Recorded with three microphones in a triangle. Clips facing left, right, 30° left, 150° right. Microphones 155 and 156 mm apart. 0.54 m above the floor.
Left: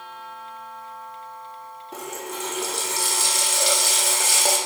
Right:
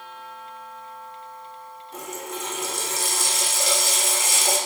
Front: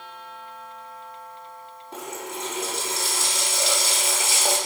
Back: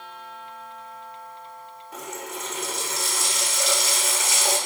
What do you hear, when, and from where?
1.9 s a running tap: 85° left, 0.8 m